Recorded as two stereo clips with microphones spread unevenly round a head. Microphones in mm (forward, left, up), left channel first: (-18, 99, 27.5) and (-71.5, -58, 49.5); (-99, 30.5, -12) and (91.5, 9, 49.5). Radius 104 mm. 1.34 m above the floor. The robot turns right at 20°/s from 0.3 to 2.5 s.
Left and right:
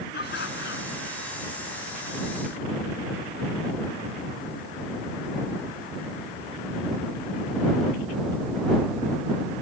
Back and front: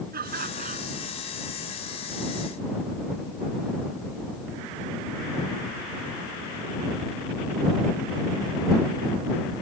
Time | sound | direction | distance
0.1 | laughter | 35° left | ?